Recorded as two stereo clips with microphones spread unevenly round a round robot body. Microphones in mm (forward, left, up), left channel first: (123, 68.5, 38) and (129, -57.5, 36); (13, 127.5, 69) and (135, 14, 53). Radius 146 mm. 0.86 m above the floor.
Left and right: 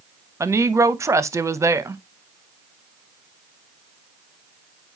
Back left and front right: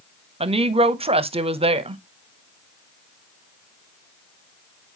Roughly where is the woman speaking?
Ahead right.